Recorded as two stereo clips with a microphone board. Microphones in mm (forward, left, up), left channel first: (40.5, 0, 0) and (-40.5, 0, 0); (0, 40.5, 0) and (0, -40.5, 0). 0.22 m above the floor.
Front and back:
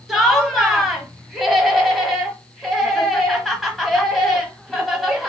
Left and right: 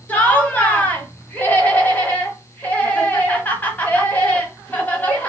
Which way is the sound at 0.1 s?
90° left.